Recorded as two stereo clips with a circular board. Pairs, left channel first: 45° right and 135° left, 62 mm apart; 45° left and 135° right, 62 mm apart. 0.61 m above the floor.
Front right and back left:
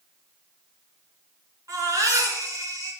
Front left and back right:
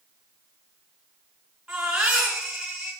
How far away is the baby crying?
About 4.5 m.